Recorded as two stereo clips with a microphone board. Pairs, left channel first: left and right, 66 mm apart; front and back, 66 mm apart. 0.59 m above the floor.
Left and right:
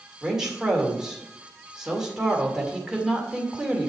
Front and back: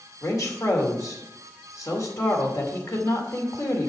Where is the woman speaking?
10° right, 2 m.